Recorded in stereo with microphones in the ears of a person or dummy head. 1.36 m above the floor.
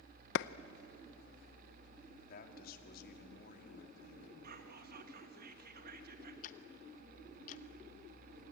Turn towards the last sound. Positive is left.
turn(degrees=40)  # may be behind; listen again after turning